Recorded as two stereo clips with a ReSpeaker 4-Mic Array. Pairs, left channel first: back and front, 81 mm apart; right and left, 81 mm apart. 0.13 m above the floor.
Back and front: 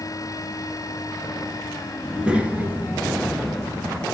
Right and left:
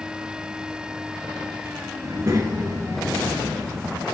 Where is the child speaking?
80° left, 1.4 m; by 4.0 s 50° left, 2.5 m.